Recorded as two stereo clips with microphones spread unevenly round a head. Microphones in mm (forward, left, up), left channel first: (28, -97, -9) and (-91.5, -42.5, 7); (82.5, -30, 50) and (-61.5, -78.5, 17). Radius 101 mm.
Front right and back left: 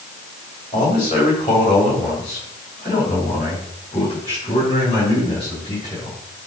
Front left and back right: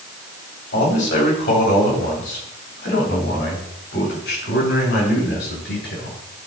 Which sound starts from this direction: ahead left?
A man speaking, at 0.7 s.